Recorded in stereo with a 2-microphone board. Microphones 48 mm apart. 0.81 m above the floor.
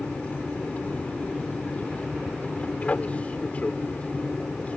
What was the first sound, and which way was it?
An aircraft, 30° left (ahead or behind).